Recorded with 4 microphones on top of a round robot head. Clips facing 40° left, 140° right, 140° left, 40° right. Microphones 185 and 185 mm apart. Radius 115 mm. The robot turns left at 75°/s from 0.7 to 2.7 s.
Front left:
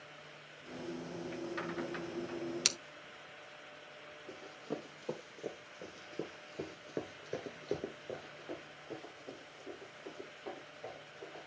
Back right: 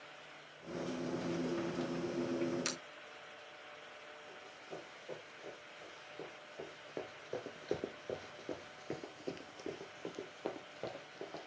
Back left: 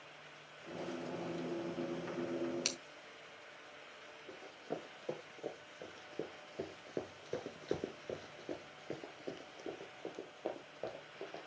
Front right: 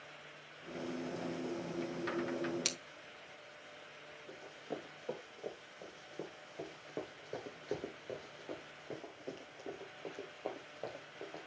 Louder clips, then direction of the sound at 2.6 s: Back right 2 dB, front right 1 dB; 45° left.